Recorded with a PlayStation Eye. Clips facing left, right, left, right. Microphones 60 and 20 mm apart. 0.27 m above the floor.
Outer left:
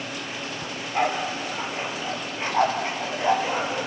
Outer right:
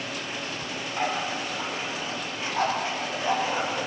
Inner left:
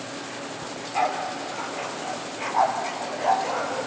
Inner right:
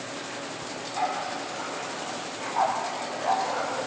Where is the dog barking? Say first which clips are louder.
Outer left 5 dB, inner left 4 dB; 60° left (ahead or behind), 3.5 m; by 3.9 s 25° left (ahead or behind), 3 m.